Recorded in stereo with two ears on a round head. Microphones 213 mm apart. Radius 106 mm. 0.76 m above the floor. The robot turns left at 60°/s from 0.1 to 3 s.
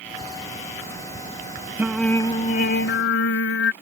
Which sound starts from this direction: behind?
Singing, at 1.8 s.